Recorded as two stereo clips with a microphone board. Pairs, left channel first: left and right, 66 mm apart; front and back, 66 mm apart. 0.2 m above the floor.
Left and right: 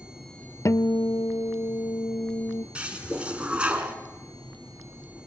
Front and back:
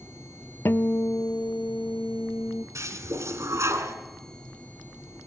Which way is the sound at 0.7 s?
50° left.